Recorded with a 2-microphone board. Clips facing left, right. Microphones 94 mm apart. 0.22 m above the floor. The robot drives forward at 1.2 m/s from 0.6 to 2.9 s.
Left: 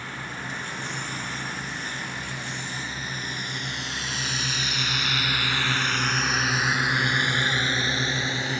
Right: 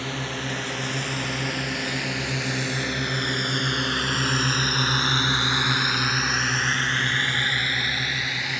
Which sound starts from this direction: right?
A drone, at 0.0 s.